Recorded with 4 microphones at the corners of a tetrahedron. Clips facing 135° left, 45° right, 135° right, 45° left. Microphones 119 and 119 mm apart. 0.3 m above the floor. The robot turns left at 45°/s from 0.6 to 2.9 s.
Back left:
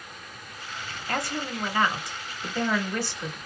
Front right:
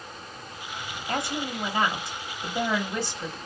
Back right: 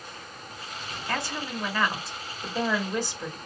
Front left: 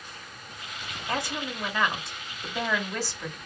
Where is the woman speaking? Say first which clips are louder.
Front right 1 dB, front left 1 dB; 5° right, 0.9 m; by 3.4 s 90° right, 0.9 m.